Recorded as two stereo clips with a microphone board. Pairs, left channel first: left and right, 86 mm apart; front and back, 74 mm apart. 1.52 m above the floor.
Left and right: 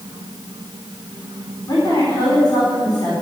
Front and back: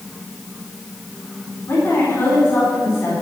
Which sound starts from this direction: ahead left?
A woman speaking, at 1.7 s.